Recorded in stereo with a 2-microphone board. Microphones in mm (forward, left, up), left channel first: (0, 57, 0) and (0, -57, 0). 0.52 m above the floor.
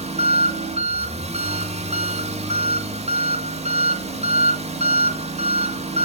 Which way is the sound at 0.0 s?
75° right (ahead or behind).